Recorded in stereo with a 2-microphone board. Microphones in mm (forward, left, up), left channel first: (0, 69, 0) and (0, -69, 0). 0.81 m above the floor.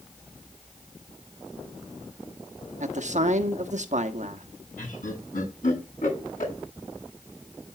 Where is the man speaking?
60° right (ahead or behind), 1.2 m.